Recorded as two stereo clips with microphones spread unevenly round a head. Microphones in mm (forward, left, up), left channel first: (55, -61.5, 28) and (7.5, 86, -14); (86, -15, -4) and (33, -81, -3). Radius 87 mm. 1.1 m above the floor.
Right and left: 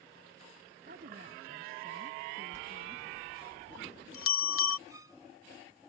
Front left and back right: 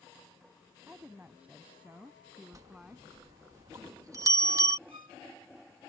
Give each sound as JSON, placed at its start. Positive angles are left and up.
{"t": 0.9, "sound": "a woman speaking", "azimuth_deg": 150}
{"t": 2.5, "sound": "a bell", "azimuth_deg": -80}
{"t": 4.9, "sound": "a violin", "azimuth_deg": -175}